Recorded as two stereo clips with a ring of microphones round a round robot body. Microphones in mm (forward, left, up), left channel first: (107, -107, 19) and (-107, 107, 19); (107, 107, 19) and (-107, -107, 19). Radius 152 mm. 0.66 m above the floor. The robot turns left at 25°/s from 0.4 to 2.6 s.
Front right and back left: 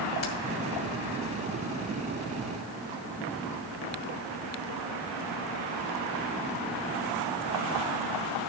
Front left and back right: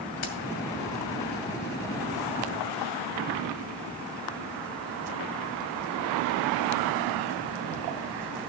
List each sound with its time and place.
0.2 s keys jangling: 5° left, 2 m